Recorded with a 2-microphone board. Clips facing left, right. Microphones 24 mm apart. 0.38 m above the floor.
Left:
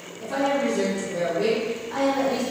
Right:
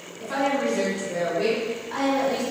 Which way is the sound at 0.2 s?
50° right (ahead or behind).